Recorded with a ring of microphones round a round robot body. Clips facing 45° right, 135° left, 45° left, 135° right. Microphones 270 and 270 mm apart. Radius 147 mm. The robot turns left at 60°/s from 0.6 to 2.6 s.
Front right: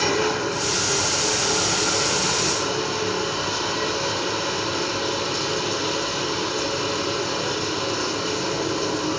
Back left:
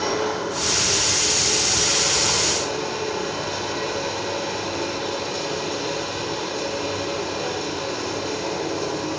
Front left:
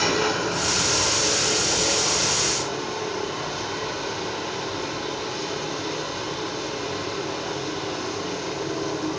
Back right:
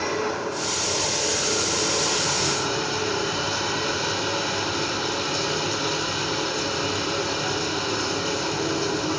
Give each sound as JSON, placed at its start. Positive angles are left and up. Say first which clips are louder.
{"t": 0.0, "sound": "running water", "louder": "front right 1 dB, front left 2 dB", "azimuth_deg": 5, "distance_m": 5.0}